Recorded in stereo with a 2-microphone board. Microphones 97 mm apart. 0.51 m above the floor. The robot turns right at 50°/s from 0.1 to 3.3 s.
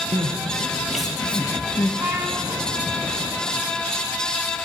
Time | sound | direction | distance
0.1 | crying | 50° right (ahead or behind) | 3 m
2.0 | a trumpet | 20° right (ahead or behind) | 5.5 m